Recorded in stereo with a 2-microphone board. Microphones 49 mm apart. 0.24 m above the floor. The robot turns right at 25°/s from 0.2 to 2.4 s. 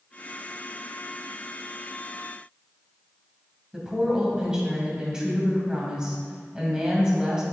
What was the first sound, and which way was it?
A woman speaking, 15° right (ahead or behind).